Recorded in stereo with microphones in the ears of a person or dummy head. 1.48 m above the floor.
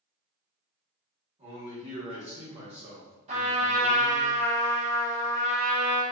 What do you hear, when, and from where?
1.4 s a man speaking: 40° right (ahead or behind), 1.4 m
3.3 s a trumpet: 30° right (ahead or behind), 0.9 m